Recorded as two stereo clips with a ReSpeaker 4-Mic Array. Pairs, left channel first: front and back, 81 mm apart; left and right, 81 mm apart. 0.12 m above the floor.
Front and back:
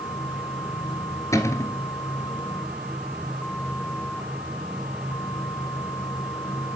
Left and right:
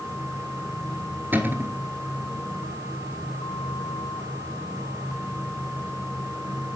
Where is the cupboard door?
35° right, 1.5 m.